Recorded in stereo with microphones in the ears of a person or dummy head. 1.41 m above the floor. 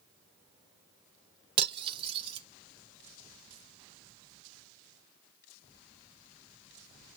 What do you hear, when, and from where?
1.6 s cutlery clinking: 30° right (ahead or behind), 0.7 m